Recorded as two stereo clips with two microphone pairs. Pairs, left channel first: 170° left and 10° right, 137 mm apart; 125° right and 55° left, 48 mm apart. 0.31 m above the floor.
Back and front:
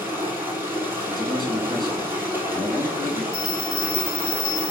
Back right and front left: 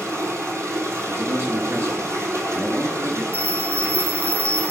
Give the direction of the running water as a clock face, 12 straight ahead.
10 o'clock.